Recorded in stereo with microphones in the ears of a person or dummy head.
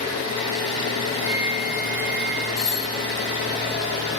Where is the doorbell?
10° right (ahead or behind), 1.6 m.